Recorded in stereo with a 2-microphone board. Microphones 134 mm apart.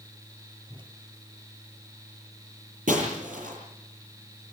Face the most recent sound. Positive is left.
turn(degrees=-80)